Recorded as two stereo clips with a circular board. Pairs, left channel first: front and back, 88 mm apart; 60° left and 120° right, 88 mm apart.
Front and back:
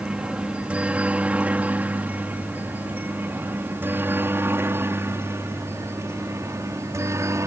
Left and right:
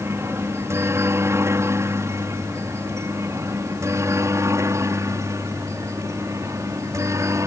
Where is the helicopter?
115° right; by 7.5 s 150° right.